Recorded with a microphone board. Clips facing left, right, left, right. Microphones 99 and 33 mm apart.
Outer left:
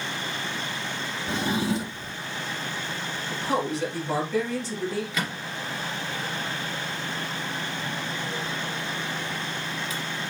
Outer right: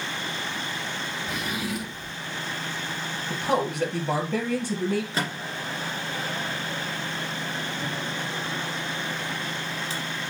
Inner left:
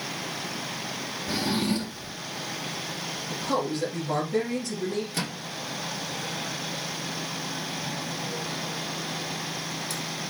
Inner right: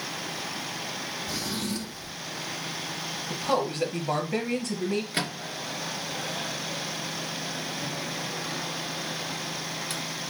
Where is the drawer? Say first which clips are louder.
Outer left 7 dB, inner left 7 dB; 30° left (ahead or behind), 1.1 m.